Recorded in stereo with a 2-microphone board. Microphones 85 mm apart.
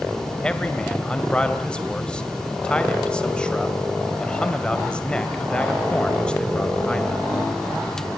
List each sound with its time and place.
0.4 s a man speaking: 10° left (ahead or behind), 2 m